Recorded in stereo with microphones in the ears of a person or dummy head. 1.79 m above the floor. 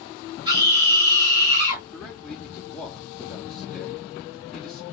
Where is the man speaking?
Centre (ahead or behind), 1.2 m.